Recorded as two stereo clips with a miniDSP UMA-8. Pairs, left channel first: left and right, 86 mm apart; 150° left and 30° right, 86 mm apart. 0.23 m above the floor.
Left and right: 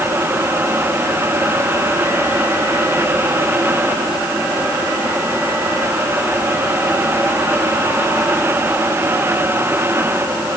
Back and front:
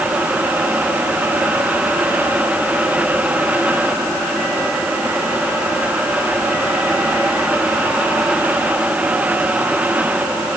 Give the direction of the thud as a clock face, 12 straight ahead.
No thud in this recording.